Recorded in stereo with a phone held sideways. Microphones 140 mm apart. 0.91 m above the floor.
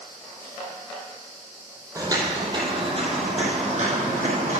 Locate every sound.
1.9 s footsteps: 25° right (ahead or behind), 1.7 m; by 4.6 s 60° right (ahead or behind), 2.5 m